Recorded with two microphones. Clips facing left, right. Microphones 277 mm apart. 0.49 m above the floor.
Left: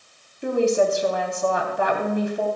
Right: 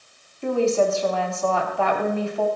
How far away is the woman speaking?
About 3.5 m.